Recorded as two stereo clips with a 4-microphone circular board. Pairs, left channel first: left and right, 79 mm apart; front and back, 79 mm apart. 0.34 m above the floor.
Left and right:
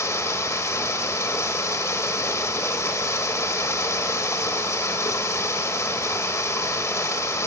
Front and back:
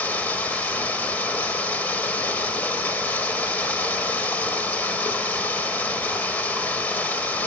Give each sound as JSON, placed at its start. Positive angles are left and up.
{"t": 0.0, "sound": "running water", "azimuth_deg": 60, "distance_m": 0.9}